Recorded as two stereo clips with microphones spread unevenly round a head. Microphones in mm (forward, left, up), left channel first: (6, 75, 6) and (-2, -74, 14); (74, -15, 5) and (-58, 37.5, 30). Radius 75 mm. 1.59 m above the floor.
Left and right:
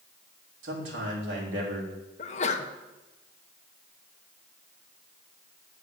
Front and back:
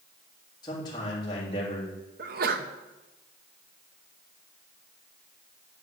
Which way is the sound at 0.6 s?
85° right.